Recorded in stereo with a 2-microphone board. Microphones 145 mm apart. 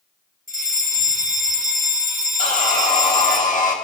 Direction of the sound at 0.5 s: 70° left (ahead or behind).